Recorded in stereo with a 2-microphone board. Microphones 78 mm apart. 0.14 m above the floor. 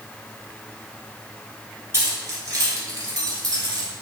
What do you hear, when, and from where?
1.9 s keys jangling: 35° right (ahead or behind), 1.4 m; by 3.9 s 55° right (ahead or behind), 2.5 m